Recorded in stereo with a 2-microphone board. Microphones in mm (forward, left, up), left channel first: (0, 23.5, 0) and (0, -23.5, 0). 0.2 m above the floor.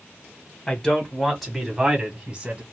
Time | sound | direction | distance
0.7 | a man speaking | 20° left (ahead or behind) | 1.7 m